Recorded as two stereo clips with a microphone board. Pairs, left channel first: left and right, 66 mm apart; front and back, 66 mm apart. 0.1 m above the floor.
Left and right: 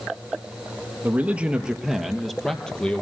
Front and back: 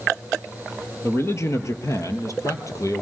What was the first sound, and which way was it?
A man speaking, 35° right.